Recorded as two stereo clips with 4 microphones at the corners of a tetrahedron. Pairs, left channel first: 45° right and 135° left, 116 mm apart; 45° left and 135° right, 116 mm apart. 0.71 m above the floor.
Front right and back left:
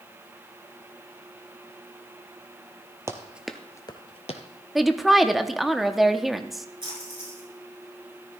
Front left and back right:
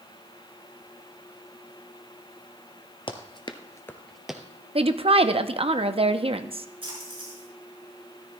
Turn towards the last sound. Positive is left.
turn(degrees=-175)